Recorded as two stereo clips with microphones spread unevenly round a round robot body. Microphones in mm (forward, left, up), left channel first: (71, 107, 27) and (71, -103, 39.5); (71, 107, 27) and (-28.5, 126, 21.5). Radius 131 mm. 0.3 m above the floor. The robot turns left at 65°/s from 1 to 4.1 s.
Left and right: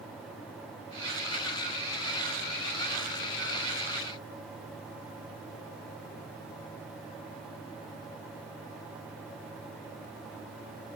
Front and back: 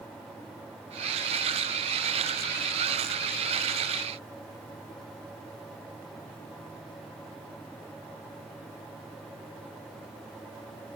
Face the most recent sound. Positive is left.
No sound to turn to.